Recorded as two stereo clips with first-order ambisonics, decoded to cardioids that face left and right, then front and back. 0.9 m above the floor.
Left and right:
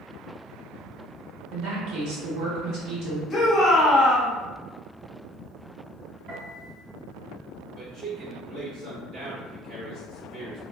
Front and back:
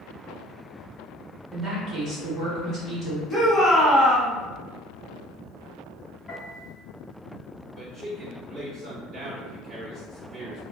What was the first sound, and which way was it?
A woman speaking, 125° right.